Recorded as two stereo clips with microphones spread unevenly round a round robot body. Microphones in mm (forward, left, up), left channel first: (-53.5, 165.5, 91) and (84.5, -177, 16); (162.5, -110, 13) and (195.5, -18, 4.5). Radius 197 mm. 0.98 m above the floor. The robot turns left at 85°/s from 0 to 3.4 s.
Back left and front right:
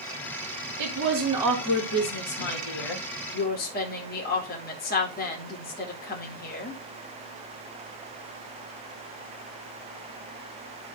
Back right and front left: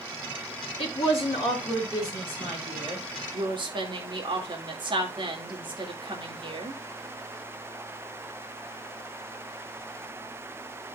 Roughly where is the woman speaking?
Right.